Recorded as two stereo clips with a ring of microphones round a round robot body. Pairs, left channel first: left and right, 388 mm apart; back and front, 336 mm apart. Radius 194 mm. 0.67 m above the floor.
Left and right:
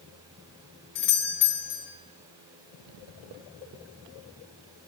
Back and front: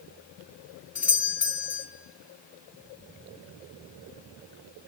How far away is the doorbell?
About 1.6 m.